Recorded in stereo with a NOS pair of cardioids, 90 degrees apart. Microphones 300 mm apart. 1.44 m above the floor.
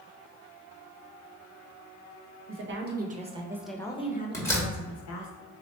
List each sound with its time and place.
2.5 s a woman speaking: 40° right, 1.3 m; by 5.3 s 65° left, 1.4 m
4.3 s a door slam: 10° left, 1.6 m